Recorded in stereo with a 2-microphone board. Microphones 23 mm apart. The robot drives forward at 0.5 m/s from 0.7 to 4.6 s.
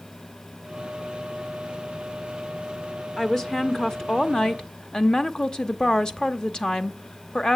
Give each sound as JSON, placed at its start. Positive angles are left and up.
{"t": 3.2, "sound": "a woman speaking", "side_deg": 20, "distance_m": 1.1}